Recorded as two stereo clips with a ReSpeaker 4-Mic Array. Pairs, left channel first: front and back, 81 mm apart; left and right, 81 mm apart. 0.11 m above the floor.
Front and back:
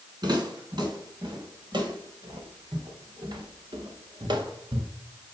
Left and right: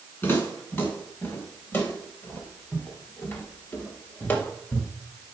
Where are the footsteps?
150° left, 4 m; by 4.9 s 160° left, 1.9 m.